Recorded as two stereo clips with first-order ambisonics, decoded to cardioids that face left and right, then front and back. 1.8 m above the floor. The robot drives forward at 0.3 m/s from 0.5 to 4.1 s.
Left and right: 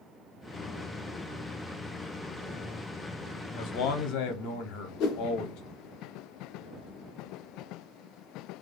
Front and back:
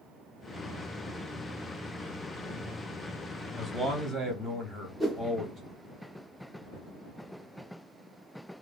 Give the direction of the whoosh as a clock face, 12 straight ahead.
8 o'clock.